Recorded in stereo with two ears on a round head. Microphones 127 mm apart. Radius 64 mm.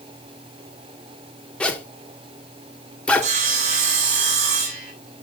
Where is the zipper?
10° left (ahead or behind), 1.6 m.